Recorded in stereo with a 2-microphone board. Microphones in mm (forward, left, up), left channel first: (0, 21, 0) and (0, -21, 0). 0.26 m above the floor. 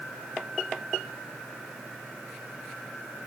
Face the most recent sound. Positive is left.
No sound to turn to.